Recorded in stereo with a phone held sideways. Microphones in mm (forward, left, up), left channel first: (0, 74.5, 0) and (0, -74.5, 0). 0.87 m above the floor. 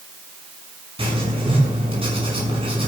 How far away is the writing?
About 6.5 m.